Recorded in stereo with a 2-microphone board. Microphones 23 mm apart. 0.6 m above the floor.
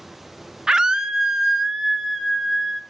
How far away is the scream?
About 0.6 m.